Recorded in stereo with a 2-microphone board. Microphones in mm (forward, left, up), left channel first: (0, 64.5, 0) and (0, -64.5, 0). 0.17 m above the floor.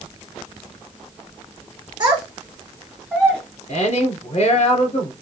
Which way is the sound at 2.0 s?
30° right (ahead or behind).